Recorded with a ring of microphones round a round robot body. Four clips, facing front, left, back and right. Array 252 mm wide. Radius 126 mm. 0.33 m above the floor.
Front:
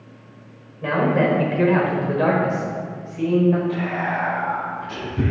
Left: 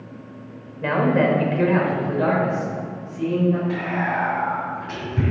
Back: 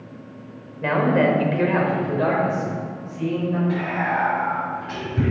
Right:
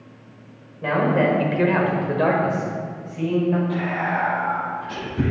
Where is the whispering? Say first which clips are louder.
Even, back 1 dB; 135° left, 2.5 m.